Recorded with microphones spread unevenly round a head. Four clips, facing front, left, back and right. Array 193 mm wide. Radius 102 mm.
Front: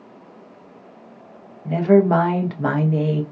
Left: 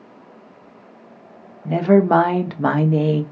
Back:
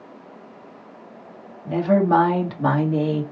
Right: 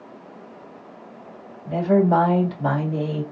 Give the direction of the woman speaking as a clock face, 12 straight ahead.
9 o'clock.